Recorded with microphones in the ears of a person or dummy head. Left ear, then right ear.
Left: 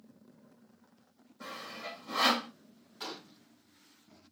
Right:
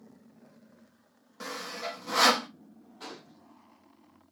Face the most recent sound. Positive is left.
turn(degrees=35)  # may be behind; listen again after turning